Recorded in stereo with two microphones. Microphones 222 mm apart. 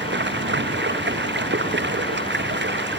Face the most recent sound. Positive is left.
turn(degrees=-55)  # may be behind; listen again after turning